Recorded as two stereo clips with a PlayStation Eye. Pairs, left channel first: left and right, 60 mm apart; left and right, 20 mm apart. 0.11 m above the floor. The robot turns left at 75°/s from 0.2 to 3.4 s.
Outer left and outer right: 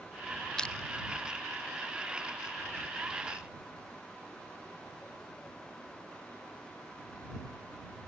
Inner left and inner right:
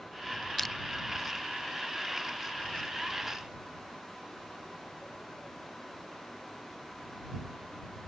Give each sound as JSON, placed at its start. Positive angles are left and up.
{"t": 0.6, "sound": "crushing", "side_deg": 10}